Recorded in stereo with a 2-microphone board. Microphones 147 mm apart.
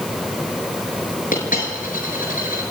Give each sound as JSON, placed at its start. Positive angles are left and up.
{"t": 1.3, "sound": "a dropped coin", "side_deg": 65, "distance_m": 6.5}